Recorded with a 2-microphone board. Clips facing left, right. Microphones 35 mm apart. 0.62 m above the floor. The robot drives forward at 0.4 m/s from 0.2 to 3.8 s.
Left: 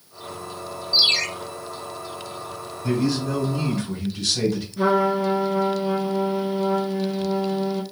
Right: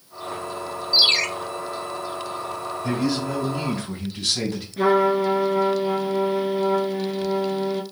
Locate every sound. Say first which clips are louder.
0.9 s a ringtone: right 1 dB; 20° right (ahead or behind), 2.5 m
2.8 s a man speaking: left 2 dB; 25° right (ahead or behind), 2.5 m; by 4.7 s 20° right (ahead or behind), 2.5 m
4.8 s a trumpet: right 2 dB; 35° right (ahead or behind), 2 m